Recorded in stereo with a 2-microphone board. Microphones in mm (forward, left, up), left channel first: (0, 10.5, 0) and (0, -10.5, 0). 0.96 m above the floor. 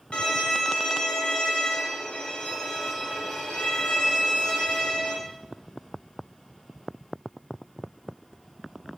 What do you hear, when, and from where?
0.1 s a violin: 60° left (ahead or behind), 0.7 m